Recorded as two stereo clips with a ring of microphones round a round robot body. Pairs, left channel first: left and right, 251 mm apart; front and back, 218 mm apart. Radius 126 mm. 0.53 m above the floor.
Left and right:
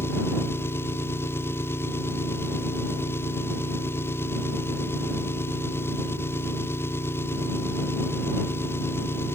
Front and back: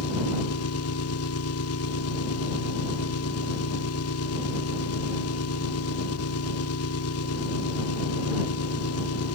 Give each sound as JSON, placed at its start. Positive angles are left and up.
{"t": 0.0, "sound": "an engine running", "azimuth_deg": 10}